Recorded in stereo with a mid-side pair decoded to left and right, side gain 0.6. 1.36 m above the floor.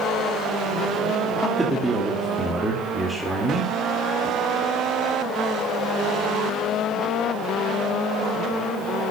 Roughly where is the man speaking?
Ahead.